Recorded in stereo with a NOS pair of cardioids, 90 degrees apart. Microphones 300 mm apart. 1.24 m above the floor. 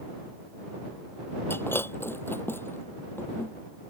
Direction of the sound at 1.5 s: 5° left.